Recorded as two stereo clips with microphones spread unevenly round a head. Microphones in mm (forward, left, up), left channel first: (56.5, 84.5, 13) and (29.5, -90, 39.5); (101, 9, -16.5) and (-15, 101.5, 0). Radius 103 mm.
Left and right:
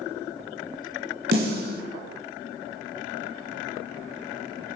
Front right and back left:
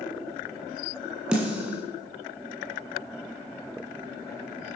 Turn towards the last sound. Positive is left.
turn(degrees=-140)